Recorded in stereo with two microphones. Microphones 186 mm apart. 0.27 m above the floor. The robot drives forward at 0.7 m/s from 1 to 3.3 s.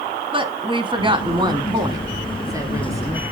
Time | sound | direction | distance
0.3 | a woman speaking | 25° right (ahead or behind) | 2 m